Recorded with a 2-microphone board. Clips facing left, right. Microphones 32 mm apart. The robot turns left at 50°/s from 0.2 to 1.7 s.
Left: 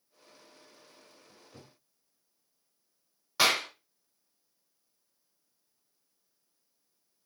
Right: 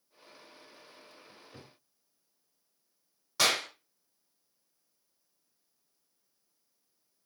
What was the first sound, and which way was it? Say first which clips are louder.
A cupboard door: right 2 dB; 50° right (ahead or behind).